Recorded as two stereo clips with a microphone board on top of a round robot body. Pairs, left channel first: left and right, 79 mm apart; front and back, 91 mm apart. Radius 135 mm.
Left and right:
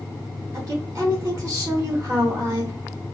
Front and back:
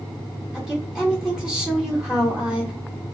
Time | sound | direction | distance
0.5 | a woman speaking | 100° right | 1.1 m